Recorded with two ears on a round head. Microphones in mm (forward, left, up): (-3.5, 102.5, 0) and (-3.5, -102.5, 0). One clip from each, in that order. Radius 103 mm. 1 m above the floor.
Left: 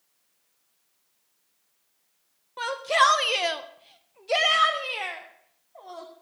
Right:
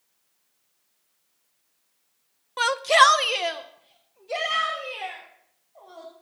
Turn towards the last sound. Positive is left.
turn(degrees=70)  # may be behind; listen again after turning